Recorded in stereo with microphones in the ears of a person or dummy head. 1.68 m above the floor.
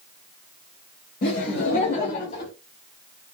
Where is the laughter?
50° left (ahead or behind), 0.9 m.